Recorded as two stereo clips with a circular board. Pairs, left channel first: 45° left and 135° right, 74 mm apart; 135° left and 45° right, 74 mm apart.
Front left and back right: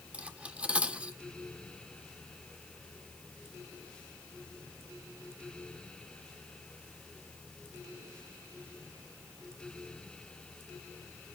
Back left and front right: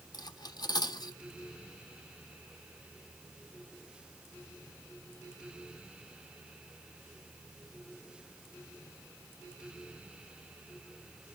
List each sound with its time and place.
0.1 s cutlery clinking: 150° left, 1.0 m